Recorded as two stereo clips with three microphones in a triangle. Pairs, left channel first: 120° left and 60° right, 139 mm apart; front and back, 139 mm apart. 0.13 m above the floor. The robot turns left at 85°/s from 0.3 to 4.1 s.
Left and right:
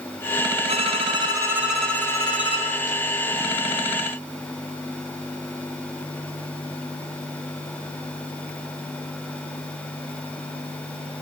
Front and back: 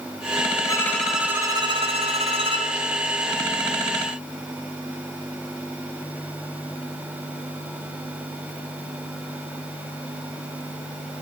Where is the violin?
55° right, 1.5 m; by 2.7 s 135° left, 1.5 m.